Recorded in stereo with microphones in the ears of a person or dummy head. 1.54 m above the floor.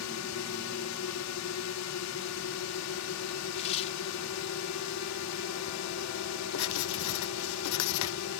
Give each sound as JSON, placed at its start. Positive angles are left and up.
{"t": 0.0, "sound": "a drone", "side_deg": 85}
{"t": 3.5, "sound": "tearing paper", "side_deg": 35}
{"t": 6.5, "sound": "writing", "side_deg": 85}